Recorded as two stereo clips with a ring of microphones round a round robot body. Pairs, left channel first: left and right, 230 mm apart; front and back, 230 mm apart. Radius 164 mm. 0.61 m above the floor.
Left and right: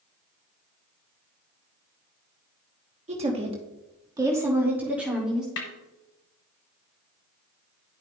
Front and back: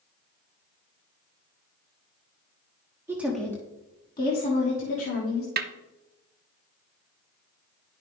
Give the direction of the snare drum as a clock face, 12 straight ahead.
7 o'clock.